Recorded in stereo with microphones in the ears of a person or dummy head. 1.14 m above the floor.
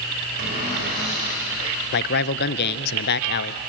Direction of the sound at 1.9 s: 55° left (ahead or behind).